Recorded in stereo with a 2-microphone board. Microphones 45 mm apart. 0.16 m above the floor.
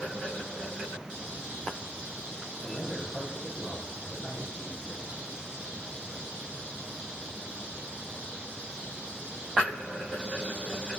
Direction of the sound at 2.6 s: Centre (ahead or behind).